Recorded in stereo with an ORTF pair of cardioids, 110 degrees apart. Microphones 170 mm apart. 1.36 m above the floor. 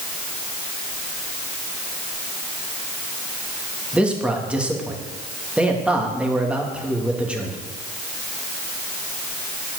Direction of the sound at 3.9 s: 5° right.